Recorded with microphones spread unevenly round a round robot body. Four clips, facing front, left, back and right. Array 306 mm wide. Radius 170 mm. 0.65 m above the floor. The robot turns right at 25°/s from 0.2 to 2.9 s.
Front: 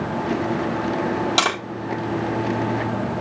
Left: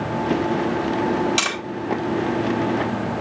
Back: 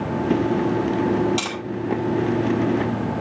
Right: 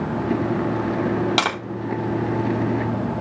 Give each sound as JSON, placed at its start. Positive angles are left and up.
{"t": 1.4, "sound": "tapping", "azimuth_deg": -50, "distance_m": 2.5}